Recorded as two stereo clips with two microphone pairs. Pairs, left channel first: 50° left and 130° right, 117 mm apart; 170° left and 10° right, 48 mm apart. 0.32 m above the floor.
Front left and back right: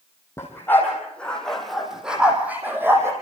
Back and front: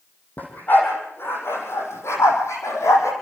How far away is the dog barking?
About 5.5 m.